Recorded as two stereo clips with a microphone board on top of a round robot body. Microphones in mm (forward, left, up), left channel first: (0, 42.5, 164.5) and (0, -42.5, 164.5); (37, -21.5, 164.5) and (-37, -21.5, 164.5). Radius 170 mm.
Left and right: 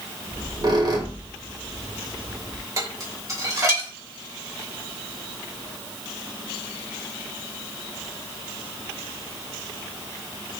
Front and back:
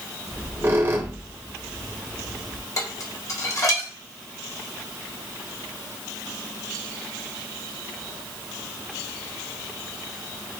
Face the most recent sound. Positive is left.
turn(degrees=-40)